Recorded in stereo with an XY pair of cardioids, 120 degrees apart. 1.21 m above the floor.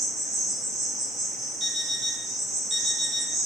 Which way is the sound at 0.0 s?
65° right.